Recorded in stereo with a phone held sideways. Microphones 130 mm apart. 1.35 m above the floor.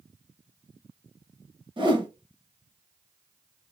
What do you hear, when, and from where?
1.8 s a whoosh: 35° right (ahead or behind), 0.7 m